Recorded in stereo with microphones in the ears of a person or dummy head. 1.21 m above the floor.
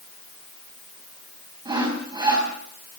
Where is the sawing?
25° right (ahead or behind), 5 m.